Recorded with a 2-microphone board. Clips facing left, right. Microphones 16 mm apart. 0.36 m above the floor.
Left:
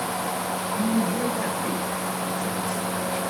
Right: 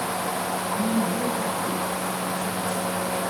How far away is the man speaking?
About 6.5 m.